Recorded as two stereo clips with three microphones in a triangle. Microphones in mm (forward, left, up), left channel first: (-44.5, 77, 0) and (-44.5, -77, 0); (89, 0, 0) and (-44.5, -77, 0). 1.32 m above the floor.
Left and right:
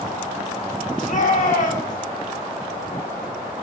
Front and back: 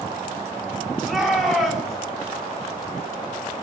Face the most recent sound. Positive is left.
turn(degrees=120)